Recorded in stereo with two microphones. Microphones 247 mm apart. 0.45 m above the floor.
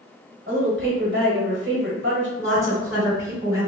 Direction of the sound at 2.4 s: 15° right (ahead or behind).